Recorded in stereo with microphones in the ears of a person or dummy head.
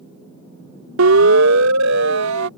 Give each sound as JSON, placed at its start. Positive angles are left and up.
{"t": 1.0, "sound": "a siren", "side_deg": -80}